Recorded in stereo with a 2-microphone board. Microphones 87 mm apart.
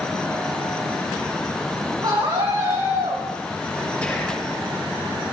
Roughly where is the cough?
I don't hear a cough.